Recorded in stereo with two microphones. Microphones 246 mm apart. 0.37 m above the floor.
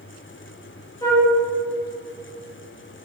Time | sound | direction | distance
1.0 | a flute | 15° left (ahead or behind) | 0.9 m